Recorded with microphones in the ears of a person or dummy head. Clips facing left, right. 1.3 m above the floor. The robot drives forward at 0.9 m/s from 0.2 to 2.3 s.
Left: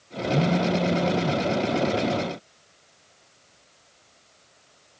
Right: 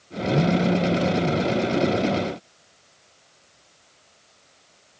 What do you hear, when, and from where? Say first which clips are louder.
0.3 s a phone buzzing: right 2 dB; 5° right (ahead or behind), 0.7 m; by 1.4 s centre (ahead or behind), 1.7 m